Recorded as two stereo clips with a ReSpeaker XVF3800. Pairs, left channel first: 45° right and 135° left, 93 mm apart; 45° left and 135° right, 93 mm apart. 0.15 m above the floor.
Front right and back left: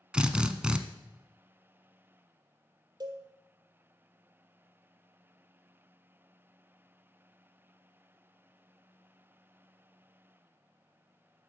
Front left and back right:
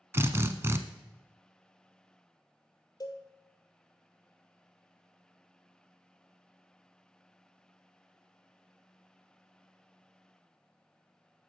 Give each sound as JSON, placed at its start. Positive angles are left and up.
{"t": 0.1, "sound": "a drill", "azimuth_deg": -155, "distance_m": 0.5}
{"t": 3.0, "sound": "a cowbell", "azimuth_deg": 95, "distance_m": 1.2}